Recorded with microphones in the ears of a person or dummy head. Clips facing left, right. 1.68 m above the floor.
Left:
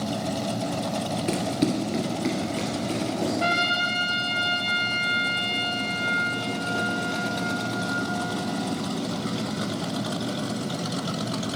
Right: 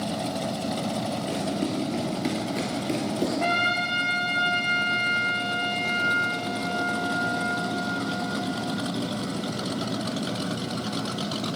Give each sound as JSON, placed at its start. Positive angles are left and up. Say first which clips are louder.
{"t": 1.3, "sound": "running footsteps", "louder": "left 5 dB", "side_deg": 35, "distance_m": 2.0}
{"t": 3.4, "sound": "a trumpet", "louder": "even", "side_deg": 15, "distance_m": 1.1}